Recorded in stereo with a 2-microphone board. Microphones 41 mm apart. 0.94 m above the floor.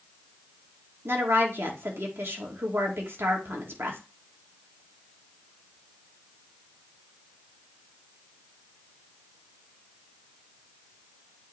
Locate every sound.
1.1 s a woman speaking: 75° right (ahead or behind), 2 m